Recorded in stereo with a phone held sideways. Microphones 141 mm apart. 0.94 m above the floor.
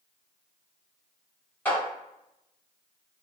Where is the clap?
10° left (ahead or behind), 1.8 m.